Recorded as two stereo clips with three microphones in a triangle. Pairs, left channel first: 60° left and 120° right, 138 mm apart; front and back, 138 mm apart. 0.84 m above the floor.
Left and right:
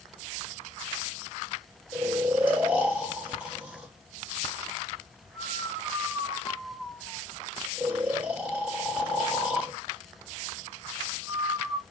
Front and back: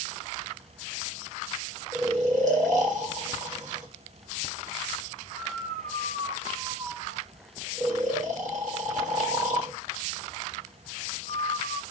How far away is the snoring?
About 1.2 m.